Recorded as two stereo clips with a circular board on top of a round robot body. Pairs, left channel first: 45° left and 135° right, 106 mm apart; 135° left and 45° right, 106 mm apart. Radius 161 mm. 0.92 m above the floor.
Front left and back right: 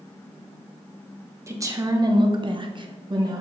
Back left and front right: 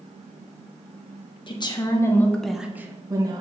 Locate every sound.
1.5 s a woman speaking: 165° left, 1.4 m; by 3.4 s 90° right, 1.4 m